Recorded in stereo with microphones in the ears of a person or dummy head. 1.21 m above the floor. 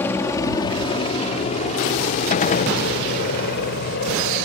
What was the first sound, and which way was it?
A helicopter, 15° left (ahead or behind).